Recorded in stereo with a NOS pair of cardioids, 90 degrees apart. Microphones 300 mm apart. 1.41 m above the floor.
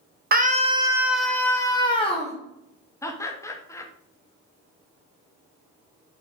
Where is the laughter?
10° left, 0.8 m.